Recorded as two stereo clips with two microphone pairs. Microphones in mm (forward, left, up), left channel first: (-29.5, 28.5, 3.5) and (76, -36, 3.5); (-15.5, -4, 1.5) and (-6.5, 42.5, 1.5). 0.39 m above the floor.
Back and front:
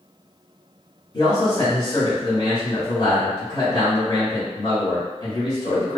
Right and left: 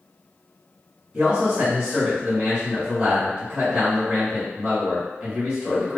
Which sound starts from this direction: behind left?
A man speaking, at 1.1 s.